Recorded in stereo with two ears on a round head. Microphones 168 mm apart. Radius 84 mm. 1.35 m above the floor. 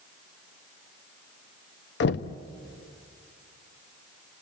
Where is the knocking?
60° left (ahead or behind), 0.5 m.